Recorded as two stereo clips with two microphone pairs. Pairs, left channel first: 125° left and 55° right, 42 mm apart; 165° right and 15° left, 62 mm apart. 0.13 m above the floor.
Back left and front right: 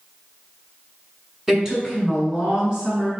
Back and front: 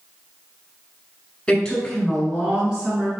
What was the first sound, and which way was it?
A woman speaking, 120° right.